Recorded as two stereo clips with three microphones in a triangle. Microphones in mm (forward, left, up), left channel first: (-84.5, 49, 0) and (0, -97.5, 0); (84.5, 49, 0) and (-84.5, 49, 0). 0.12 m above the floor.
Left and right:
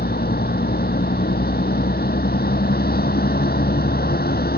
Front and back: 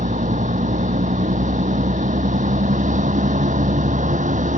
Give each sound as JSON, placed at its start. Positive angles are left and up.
{"t": 0.0, "sound": "a vehicle", "azimuth_deg": 140}